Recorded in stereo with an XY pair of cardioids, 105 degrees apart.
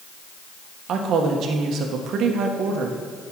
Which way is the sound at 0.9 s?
65° right.